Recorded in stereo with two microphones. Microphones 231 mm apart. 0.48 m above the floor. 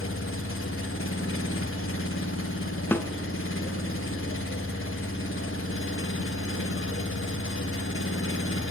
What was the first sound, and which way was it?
An engine running, 65° left (ahead or behind).